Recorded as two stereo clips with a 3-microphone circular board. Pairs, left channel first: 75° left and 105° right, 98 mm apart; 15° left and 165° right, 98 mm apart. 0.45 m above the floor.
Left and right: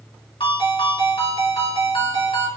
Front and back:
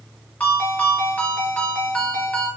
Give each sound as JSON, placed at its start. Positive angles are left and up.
{"t": 0.4, "sound": "a ringtone", "azimuth_deg": 95, "distance_m": 2.5}